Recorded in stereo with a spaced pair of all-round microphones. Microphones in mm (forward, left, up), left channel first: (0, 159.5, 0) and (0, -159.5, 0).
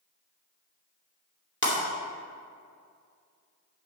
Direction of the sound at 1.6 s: 35° left (ahead or behind).